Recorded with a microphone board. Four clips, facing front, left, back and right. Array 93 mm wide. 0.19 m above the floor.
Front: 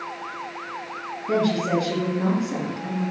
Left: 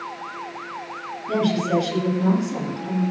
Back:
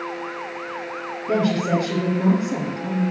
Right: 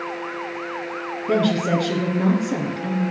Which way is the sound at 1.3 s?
90° right.